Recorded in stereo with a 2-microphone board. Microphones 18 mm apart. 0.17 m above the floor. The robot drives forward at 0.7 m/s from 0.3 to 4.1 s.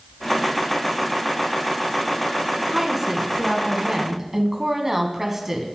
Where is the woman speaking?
15° right (ahead or behind), 1.8 m; by 5.7 s 20° right (ahead or behind), 1.5 m.